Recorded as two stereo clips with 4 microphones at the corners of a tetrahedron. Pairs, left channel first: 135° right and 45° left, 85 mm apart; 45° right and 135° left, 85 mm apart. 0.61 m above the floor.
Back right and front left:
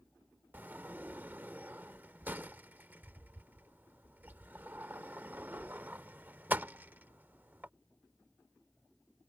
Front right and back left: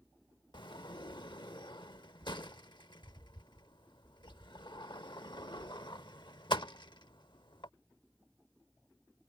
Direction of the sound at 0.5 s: 25° right.